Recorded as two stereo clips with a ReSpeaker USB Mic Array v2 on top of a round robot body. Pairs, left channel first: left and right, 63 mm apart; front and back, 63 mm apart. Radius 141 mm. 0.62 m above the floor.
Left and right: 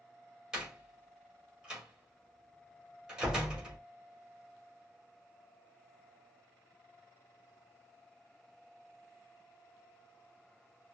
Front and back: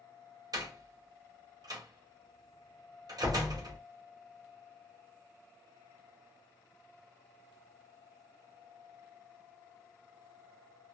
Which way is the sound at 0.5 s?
165° right.